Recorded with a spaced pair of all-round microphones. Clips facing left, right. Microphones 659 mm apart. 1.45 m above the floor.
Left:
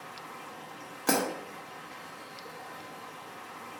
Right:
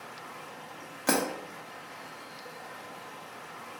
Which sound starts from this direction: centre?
Breaking glass, at 1.1 s.